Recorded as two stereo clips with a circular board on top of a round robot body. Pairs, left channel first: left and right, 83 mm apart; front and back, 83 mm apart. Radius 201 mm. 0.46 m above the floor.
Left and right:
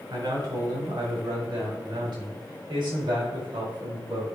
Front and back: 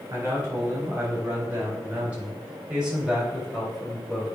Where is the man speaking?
120° right, 4 m; by 4.2 s 90° right, 3 m.